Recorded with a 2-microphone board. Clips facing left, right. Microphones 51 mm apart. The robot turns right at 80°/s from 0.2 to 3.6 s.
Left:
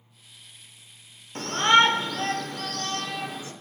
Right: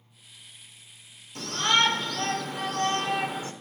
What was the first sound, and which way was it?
A shout, 105° left.